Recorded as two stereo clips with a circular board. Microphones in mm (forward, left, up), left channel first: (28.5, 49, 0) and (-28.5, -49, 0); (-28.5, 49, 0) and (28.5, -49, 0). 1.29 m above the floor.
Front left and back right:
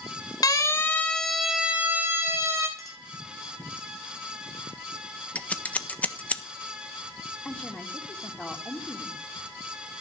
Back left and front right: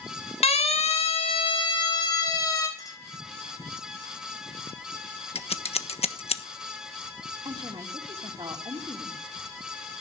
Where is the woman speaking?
20° right, 2.5 m.